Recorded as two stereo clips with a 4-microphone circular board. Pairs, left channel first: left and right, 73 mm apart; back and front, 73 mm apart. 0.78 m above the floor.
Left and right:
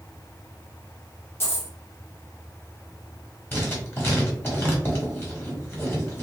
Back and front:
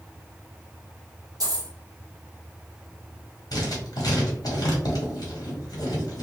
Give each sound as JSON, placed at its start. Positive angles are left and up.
{"t": 1.4, "sound": "a dropped coin", "azimuth_deg": 35, "distance_m": 1.1}
{"t": 3.5, "sound": "writing", "azimuth_deg": 150, "distance_m": 1.6}